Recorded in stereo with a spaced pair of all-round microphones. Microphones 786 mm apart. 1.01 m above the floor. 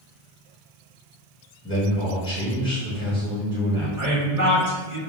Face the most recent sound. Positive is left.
turn(degrees=-60)  # may be behind; listen again after turning